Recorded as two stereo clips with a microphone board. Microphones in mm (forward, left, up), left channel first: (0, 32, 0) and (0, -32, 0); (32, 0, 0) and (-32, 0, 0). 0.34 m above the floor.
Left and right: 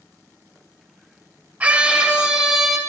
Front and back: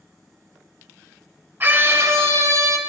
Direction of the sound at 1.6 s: 145° right.